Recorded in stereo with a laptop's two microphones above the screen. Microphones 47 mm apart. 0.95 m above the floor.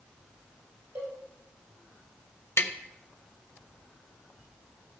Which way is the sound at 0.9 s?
65° right (ahead or behind).